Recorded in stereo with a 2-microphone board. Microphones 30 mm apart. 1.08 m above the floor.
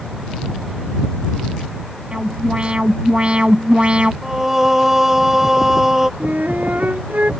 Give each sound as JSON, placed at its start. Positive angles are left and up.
{"t": 2.1, "sound": "an alarm", "side_deg": -40}
{"t": 4.2, "sound": "singing", "side_deg": -10}
{"t": 6.2, "sound": "a flute", "side_deg": -60}